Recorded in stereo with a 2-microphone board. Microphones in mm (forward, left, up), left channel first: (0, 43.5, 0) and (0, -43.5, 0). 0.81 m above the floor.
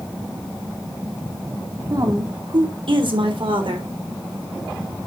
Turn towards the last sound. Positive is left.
turn(degrees=-75)  # may be behind; listen again after turning